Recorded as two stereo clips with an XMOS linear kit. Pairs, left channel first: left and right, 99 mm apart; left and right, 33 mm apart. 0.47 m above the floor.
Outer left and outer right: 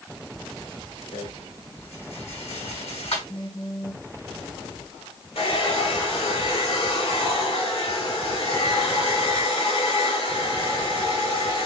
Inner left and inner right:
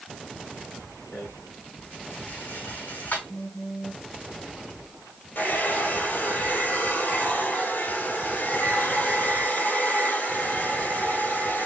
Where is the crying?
I don't hear crying.